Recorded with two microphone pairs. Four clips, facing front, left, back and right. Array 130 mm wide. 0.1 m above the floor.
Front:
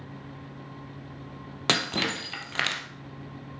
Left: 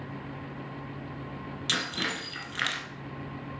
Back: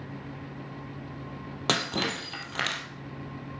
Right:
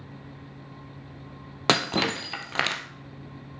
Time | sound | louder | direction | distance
1.7 | breaking glass | right 10 dB, front 1 dB | 85° right | 1.5 m